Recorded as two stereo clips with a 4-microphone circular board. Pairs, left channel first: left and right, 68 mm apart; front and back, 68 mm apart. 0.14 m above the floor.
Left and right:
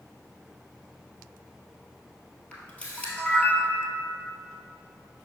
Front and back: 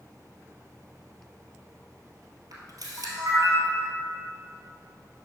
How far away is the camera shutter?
About 1.6 m.